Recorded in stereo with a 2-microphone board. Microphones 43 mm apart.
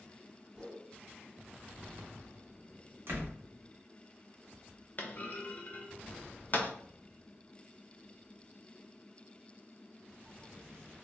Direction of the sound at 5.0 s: 40° left (ahead or behind).